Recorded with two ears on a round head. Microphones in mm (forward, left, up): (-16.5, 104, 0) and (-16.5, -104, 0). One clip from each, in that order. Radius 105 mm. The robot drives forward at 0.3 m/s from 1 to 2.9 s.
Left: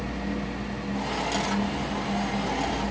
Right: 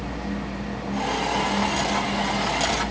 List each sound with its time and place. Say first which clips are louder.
0.0 s a vehicle: right 1 dB; 60° right (ahead or behind)